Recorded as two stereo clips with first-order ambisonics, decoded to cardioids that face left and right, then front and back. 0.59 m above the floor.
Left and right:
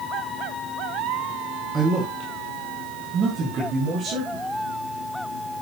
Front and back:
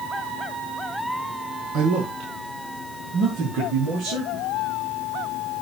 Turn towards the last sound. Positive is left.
turn(degrees=-135)